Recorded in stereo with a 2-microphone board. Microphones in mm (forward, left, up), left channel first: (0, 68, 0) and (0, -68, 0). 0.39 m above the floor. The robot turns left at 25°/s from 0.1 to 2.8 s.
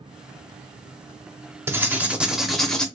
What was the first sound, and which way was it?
Writing, 15° right (ahead or behind).